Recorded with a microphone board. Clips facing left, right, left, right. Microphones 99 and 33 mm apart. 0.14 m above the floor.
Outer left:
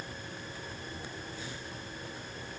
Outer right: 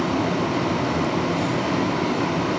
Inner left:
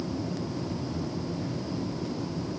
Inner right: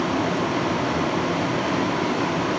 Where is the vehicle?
85° right.